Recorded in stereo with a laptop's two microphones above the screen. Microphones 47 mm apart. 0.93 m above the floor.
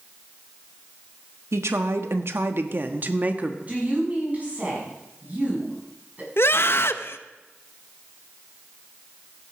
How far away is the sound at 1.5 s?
About 1.3 m.